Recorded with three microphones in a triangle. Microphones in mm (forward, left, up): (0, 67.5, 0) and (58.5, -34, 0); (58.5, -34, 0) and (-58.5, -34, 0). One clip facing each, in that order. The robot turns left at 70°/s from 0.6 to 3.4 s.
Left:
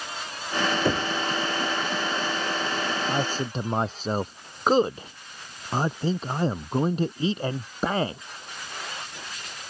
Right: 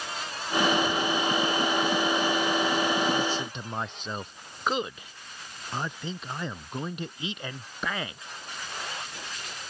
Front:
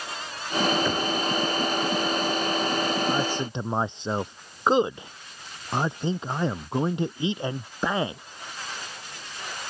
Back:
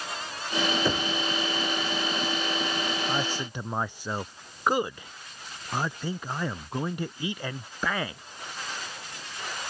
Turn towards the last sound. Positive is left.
turn(degrees=65)